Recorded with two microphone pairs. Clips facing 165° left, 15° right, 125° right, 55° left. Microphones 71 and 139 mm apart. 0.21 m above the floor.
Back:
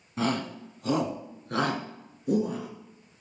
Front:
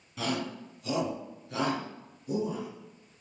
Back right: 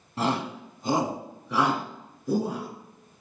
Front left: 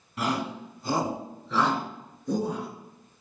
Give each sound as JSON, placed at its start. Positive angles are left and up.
{"t": 0.2, "sound": "a shout", "azimuth_deg": -170, "distance_m": 1.3}